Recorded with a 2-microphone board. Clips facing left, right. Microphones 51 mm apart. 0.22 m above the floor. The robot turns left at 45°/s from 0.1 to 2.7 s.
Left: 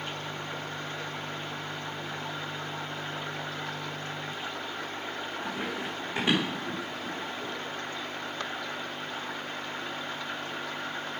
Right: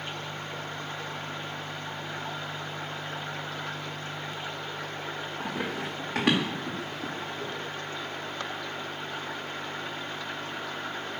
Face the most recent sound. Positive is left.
turn(degrees=-65)  # may be behind; listen again after turning